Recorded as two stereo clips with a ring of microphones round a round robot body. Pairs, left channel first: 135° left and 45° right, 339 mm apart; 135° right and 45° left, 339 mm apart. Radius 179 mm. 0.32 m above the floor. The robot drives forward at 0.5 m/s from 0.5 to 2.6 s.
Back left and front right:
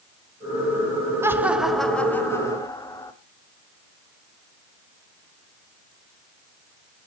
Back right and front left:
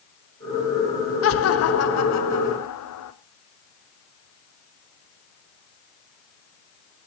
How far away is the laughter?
About 1.4 m.